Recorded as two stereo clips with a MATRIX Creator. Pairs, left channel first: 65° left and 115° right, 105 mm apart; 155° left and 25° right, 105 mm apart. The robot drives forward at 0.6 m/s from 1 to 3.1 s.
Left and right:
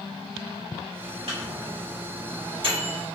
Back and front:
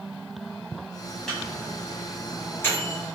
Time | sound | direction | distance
1.3 | a microwave | 115° right | 1.7 m